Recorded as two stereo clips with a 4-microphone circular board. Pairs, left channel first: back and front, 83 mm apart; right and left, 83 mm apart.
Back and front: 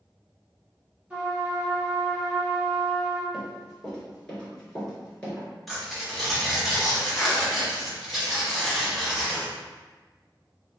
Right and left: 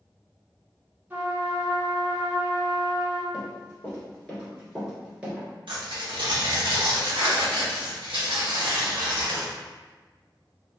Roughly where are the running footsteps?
Right.